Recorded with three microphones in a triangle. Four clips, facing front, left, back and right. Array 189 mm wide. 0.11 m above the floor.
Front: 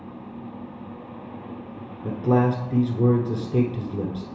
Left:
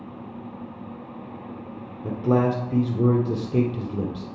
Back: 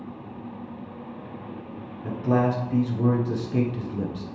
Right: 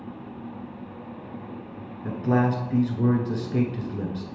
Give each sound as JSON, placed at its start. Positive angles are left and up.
{"t": 2.0, "sound": "a man speaking", "azimuth_deg": 75, "distance_m": 1.2}